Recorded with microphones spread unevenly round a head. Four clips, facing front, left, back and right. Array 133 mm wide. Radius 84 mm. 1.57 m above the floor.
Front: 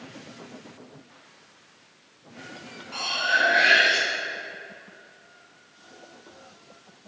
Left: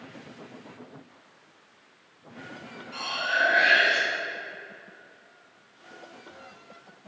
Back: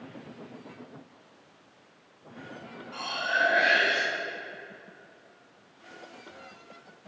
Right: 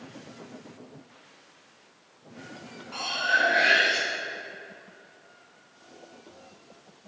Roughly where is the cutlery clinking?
Ahead right.